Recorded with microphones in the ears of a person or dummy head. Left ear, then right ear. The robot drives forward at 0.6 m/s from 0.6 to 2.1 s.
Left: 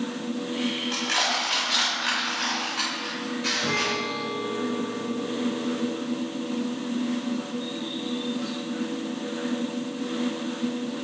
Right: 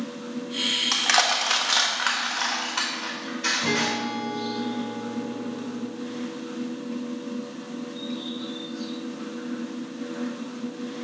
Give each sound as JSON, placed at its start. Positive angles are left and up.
{"t": 0.9, "sound": "crushing", "side_deg": -55, "distance_m": 0.8}
{"t": 3.6, "sound": "a guitar", "side_deg": -5, "distance_m": 0.7}